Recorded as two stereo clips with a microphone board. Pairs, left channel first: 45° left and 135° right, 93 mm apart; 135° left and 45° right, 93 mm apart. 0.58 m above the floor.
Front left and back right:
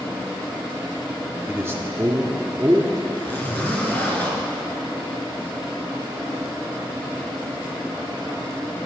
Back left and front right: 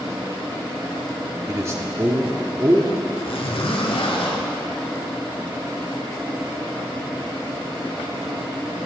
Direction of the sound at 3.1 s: 115° left.